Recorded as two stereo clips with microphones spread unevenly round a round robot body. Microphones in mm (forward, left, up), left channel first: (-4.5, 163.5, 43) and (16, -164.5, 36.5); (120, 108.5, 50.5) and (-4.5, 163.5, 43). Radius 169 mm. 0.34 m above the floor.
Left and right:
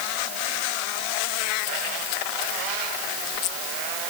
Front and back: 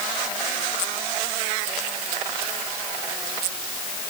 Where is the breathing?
No breathing in this recording.